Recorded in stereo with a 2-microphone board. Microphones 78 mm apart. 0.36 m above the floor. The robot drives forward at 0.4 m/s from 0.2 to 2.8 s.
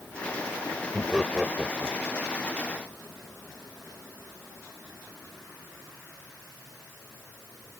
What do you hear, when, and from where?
0.9 s laughter: centre (ahead or behind)